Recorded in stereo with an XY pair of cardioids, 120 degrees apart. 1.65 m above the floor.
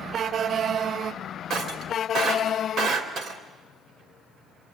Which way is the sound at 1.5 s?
60° right.